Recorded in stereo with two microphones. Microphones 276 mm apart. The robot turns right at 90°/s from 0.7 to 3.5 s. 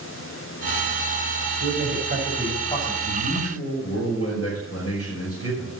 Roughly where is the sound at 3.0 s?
Left.